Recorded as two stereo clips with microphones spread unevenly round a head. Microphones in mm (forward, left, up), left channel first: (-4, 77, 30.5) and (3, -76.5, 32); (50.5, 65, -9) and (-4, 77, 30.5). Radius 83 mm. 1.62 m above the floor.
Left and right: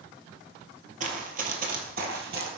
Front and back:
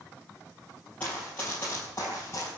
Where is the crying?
No crying in this recording.